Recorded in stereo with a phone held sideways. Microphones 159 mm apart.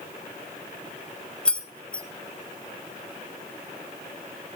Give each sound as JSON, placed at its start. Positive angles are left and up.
{"t": 1.4, "sound": "keys jangling", "side_deg": 5, "distance_m": 1.0}